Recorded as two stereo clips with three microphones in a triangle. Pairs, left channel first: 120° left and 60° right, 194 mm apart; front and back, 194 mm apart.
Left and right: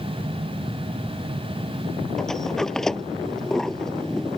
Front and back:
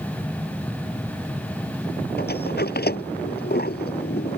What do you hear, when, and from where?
2.2 s a sliding door: 30° left